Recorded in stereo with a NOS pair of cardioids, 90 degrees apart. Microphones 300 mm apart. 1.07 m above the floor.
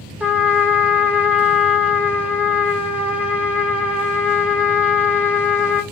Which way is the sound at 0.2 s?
5° right.